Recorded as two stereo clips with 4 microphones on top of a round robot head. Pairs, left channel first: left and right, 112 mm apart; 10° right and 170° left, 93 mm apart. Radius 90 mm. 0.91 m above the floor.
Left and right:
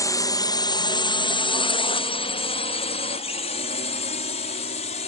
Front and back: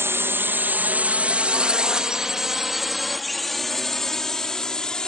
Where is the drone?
125° left; by 5.1 s 70° left.